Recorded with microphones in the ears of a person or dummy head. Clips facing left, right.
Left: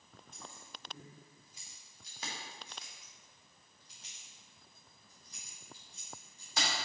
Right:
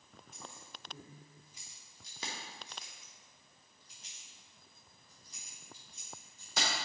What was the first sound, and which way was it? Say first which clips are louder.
Keys jangling: right 1 dB; 5° right (ahead or behind).